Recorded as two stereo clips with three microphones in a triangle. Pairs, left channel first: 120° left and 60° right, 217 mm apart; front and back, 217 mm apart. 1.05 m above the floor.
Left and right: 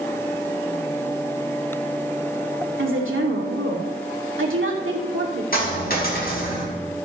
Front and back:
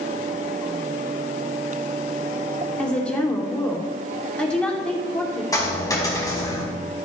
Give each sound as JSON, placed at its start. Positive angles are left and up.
{"t": 2.8, "sound": "a woman speaking", "azimuth_deg": -85, "distance_m": 2.5}
{"t": 5.5, "sound": "a dropped coin", "azimuth_deg": 75, "distance_m": 4.0}